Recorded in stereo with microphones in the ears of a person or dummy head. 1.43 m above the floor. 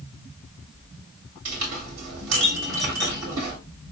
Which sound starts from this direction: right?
A clink, at 1.4 s.